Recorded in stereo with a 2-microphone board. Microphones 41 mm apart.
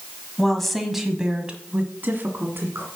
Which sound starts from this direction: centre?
A woman speaking, at 0.4 s.